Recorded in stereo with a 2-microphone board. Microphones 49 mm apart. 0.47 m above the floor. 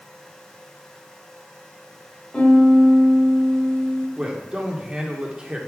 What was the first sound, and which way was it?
A piano, 20° left (ahead or behind).